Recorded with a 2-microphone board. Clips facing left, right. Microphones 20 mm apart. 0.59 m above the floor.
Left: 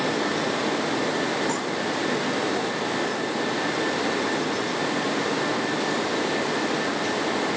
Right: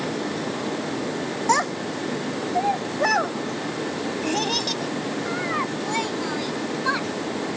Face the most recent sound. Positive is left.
turn(degrees=-65)  # may be behind; listen again after turning